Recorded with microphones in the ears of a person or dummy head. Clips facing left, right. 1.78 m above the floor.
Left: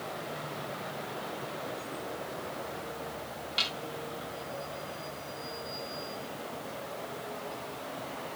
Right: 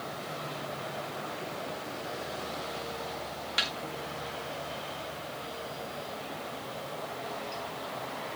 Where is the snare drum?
25° right (ahead or behind), 2.5 m.